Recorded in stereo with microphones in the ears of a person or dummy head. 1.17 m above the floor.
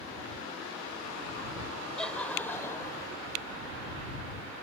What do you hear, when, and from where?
2.0 s laughter: 5° left (ahead or behind); by 3.1 s 20° left (ahead or behind)